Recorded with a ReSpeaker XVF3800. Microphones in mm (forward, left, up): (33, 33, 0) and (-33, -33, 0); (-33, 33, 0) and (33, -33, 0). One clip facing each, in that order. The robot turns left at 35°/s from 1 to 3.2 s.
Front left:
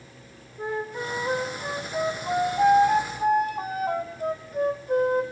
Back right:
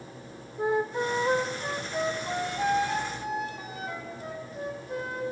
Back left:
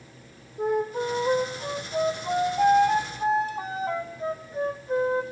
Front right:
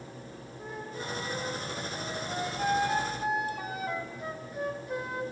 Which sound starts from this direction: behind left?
A flute, at 0.6 s.